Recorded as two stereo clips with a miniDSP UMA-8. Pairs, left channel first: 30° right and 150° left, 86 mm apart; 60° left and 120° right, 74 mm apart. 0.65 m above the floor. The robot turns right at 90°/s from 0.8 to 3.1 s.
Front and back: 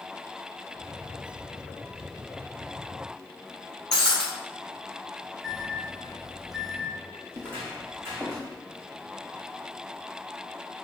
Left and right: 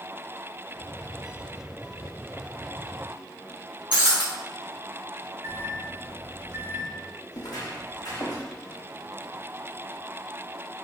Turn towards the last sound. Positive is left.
turn(degrees=95)